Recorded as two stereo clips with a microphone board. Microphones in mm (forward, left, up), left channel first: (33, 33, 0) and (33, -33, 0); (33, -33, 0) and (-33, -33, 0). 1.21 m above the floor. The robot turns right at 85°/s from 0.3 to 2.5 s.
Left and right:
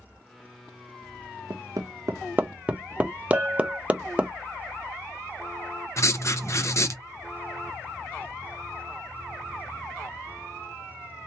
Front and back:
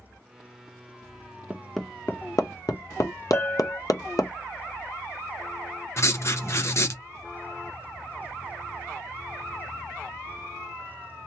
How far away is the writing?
About 0.8 m.